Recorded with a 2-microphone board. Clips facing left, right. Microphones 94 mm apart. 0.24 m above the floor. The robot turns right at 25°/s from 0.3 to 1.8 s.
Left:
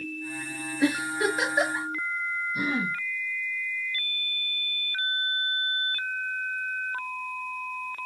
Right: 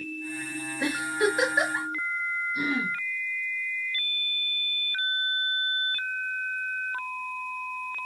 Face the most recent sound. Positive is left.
turn(degrees=30)  # may be behind; listen again after turning